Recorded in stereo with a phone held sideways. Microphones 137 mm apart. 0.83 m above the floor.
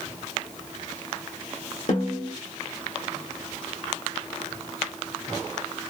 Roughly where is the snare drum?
Left.